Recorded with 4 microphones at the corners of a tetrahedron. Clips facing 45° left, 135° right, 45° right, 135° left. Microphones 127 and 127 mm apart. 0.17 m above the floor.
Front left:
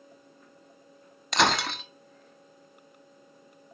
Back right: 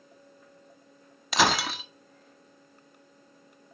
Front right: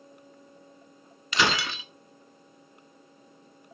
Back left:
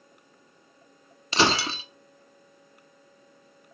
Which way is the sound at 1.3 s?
140° left.